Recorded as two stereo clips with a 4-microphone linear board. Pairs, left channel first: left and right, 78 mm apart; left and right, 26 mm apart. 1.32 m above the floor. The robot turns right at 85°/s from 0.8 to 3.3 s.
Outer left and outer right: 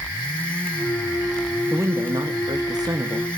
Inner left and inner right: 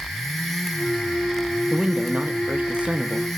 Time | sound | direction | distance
1.7 | a man speaking | 155° right | 1.3 m